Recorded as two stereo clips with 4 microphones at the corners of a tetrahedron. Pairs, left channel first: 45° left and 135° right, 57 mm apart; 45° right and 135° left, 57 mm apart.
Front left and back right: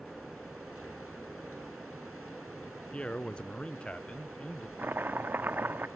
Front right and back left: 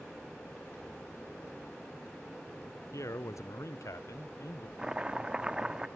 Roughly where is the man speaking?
Ahead right.